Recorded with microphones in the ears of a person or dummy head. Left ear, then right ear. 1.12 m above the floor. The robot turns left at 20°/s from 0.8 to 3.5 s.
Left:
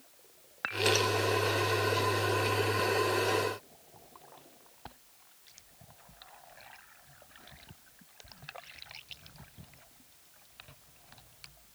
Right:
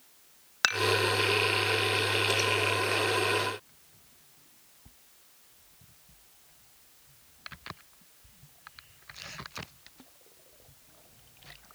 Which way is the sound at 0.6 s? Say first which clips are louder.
Right 7 dB; 85° right.